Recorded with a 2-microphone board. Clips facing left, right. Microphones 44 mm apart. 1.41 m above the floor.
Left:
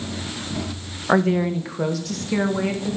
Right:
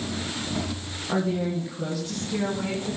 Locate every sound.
1.1 s a woman speaking: 55° left (ahead or behind), 1.8 m; by 3.0 s 80° left, 3.5 m